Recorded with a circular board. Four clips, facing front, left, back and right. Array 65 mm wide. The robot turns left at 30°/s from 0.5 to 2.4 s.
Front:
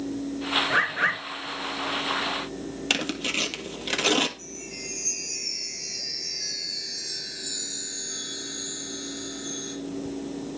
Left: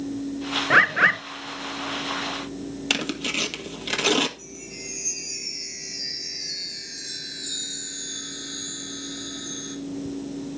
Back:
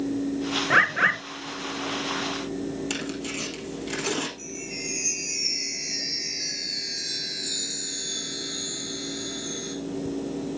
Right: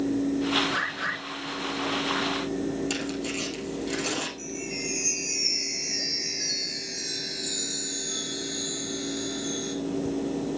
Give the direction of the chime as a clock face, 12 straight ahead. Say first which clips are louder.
Right 6 dB, back 4 dB; 4 o'clock.